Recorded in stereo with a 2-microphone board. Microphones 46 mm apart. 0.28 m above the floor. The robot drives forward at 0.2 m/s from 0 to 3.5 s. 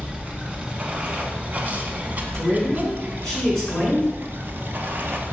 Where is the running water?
30° right (ahead or behind), 1.4 m; by 5.3 s 50° right (ahead or behind), 0.9 m.